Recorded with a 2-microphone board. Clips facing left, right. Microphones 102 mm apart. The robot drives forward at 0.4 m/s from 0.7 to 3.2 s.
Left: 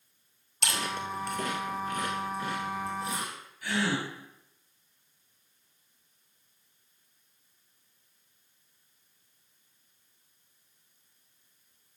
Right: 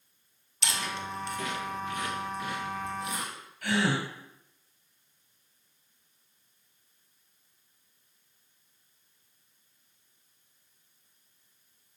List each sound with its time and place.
0.6 s chewing: 50° left (ahead or behind), 1.4 m; by 3.3 s 30° left (ahead or behind), 2 m
3.6 s a gasp: 60° right (ahead or behind), 3 m